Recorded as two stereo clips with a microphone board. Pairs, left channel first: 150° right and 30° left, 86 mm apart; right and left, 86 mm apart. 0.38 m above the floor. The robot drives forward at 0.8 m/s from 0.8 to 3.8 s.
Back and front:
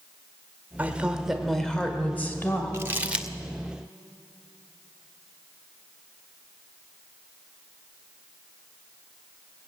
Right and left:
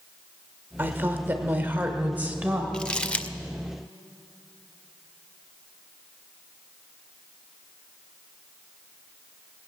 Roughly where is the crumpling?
Ahead.